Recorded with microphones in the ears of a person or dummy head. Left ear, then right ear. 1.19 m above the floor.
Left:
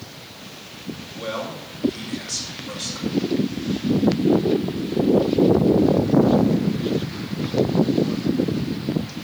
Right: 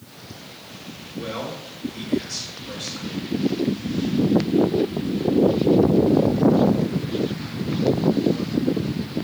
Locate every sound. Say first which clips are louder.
1.1 s a man speaking: left 1 dB; 80° left, 5 m